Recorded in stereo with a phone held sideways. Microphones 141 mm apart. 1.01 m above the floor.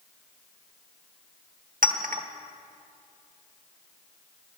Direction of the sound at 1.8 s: 75° right (ahead or behind).